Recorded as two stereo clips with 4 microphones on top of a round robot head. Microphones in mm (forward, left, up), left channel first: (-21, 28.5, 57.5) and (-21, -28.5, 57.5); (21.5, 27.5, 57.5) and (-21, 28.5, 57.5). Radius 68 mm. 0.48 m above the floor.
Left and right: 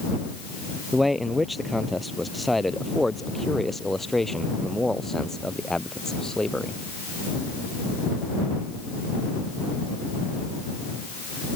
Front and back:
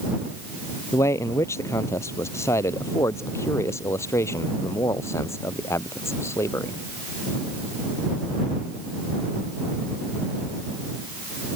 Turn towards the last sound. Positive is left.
turn(degrees=10)